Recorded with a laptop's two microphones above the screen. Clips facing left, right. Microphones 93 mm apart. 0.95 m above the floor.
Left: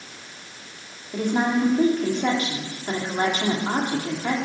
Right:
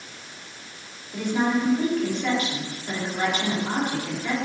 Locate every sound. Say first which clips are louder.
1.1 s a woman speaking: left 1 dB; 40° left (ahead or behind), 2 m